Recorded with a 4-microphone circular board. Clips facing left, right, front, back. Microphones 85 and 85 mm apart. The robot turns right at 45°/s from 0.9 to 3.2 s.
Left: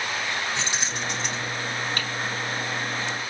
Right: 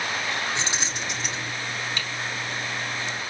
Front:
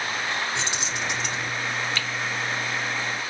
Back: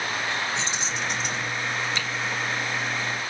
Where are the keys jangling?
20° right, 3 m; by 1.5 s 10° left, 3 m.